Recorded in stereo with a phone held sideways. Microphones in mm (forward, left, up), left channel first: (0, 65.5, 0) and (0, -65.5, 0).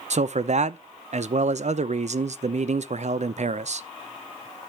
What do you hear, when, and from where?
0.1 s a man speaking: 60° right (ahead or behind), 0.5 m